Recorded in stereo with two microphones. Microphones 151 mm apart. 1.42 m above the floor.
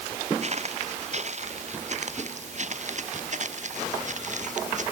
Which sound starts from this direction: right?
Footsteps, at 0.4 s.